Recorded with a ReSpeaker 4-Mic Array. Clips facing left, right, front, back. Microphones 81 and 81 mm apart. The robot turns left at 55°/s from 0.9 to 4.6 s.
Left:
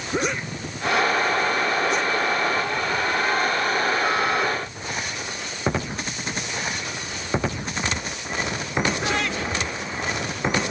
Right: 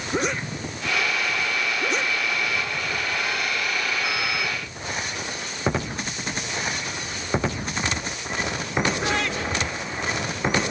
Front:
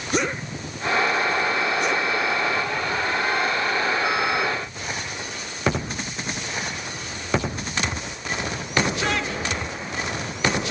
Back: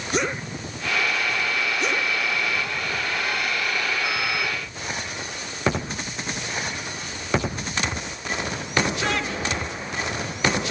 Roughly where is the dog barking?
I don't hear a dog barking.